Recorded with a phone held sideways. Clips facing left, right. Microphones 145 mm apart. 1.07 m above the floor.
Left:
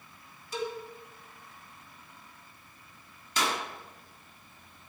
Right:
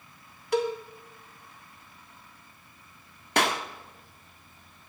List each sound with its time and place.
0.5 s a cowbell: 70° right (ahead or behind), 1.7 m
3.4 s a clap: 65° right (ahead or behind), 1.5 m